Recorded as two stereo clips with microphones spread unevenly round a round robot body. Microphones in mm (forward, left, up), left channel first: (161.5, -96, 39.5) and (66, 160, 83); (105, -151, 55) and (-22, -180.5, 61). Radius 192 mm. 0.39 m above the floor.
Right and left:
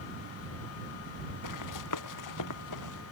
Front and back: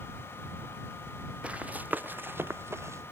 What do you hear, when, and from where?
1.4 s running footsteps: 85° right; by 3.0 s 95° right